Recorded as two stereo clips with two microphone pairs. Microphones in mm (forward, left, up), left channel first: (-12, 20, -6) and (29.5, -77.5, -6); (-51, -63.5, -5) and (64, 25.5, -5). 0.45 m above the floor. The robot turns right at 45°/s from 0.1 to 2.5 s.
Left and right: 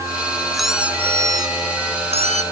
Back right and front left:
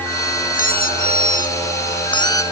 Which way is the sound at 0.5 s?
160° right.